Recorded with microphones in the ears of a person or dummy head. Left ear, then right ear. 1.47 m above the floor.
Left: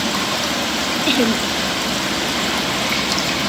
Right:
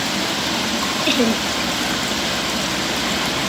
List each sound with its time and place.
1.1 s laughter: 5° right (ahead or behind)